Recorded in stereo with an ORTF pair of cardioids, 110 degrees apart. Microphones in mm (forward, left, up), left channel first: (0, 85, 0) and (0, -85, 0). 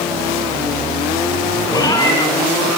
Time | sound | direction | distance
1.7 | a cat meowing | 25° left | 5.5 m